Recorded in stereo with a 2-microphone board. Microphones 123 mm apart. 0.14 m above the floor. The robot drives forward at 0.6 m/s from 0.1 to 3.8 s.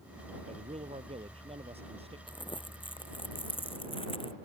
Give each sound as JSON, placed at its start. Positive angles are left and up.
{"t": 0.5, "sound": "a man speaking", "side_deg": -65}
{"t": 2.3, "sound": "crumpling", "side_deg": 40}